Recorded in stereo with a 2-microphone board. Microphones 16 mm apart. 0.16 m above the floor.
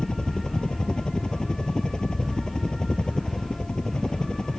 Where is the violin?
No violin in this recording.